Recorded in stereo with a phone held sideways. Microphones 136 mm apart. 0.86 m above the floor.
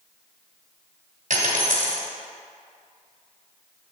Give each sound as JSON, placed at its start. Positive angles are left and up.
{"t": 1.3, "sound": "a dropped coin", "side_deg": -80, "distance_m": 1.8}